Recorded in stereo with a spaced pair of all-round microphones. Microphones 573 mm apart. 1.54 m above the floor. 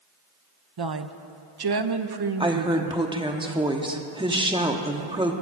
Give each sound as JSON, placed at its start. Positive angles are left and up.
{"t": 0.8, "sound": "a woman speaking", "side_deg": -45, "distance_m": 0.6}
{"t": 2.4, "sound": "a woman speaking", "side_deg": -10, "distance_m": 0.9}